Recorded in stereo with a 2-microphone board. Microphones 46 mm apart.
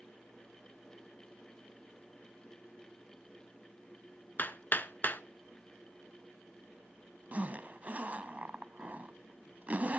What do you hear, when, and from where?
4.4 s hammering: 40° left (ahead or behind), 0.5 m
7.3 s a zipper: 35° right (ahead or behind), 0.9 m